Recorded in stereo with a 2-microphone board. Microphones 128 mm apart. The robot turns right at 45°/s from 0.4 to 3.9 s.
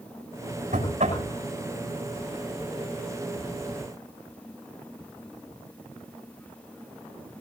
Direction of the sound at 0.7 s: 80° right.